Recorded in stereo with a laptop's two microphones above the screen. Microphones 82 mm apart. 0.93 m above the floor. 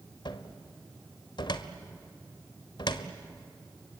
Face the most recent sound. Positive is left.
turn(degrees=70)  # may be behind; listen again after turning